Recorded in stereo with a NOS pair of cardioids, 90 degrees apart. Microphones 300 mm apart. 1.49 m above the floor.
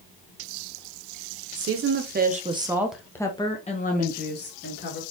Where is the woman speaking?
55° right, 1.3 m; by 5.0 s 40° left, 2 m.